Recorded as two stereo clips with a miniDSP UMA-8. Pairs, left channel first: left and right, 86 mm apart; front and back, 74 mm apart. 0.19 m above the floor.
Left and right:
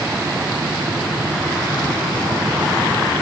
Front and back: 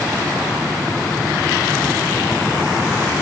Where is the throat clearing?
I don't hear throat clearing.